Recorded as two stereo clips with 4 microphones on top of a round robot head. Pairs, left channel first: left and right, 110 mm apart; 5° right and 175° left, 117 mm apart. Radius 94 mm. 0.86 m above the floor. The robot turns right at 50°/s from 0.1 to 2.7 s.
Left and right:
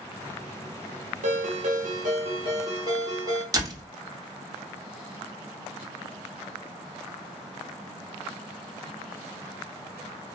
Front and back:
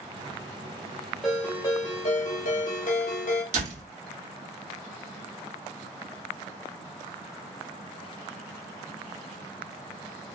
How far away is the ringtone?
About 1.4 m.